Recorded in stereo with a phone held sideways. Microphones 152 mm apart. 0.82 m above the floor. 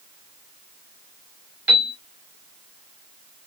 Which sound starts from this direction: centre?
A piano, at 1.7 s.